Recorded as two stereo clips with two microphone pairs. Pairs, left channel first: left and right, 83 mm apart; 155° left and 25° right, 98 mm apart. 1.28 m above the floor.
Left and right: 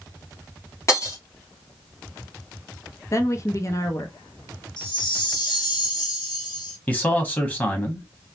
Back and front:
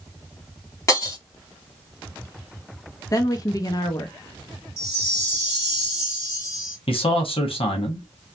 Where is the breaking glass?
115° left, 1.5 m.